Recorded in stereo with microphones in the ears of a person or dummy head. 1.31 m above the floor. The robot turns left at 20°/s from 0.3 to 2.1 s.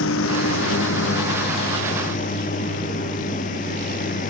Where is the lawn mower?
80° left; by 4.3 s 45° left.